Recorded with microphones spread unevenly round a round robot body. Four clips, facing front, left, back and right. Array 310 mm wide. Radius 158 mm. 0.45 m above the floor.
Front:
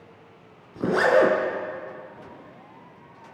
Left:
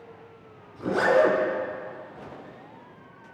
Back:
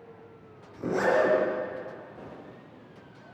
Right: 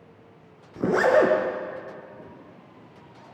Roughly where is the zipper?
Ahead right.